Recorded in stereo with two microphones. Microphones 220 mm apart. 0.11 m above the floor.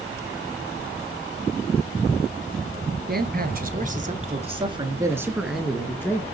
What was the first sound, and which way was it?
A man speaking, 45° right (ahead or behind).